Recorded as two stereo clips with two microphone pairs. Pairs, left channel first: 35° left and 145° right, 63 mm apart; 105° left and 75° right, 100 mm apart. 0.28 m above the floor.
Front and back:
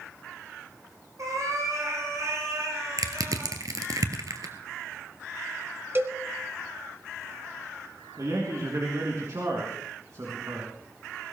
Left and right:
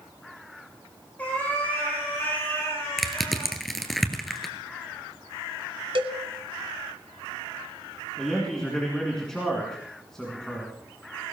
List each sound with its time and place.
1.2 s a cat meowing: straight behind, 8 m; by 3.6 s 170° left, 8.5 m
3.0 s crushing: 165° right, 1.5 m
6.0 s a cowbell: 100° right, 1.4 m
8.2 s a man speaking: 170° right, 3.5 m